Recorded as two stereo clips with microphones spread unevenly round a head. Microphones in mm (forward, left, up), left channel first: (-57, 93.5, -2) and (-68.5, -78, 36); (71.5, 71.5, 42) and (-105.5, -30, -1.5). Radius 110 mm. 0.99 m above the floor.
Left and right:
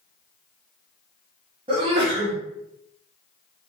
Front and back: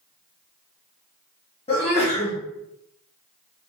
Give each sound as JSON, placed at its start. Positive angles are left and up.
{"t": 1.7, "sound": "a sneeze", "azimuth_deg": -30, "distance_m": 1.0}